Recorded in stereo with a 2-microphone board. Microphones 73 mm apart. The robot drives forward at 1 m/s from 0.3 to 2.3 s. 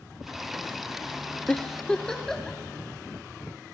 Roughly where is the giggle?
Centre.